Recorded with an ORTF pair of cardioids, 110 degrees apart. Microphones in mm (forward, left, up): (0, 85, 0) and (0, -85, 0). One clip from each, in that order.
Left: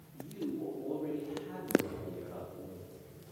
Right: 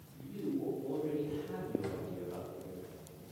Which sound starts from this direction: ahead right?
A drawer, at 1.8 s.